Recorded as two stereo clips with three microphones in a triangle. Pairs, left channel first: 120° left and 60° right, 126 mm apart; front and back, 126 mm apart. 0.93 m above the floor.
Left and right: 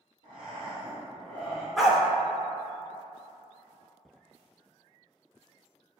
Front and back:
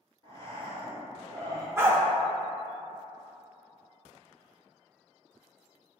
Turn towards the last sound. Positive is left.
turn(degrees=-145)